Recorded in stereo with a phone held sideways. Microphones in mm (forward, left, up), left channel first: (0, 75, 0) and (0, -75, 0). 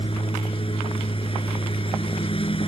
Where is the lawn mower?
40° left (ahead or behind).